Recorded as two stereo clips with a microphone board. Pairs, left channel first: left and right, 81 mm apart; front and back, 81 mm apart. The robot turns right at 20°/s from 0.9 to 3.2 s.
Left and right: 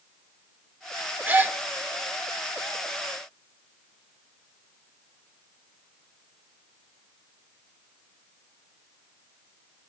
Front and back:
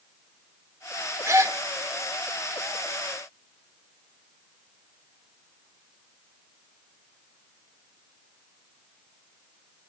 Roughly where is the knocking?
I don't hear knocking.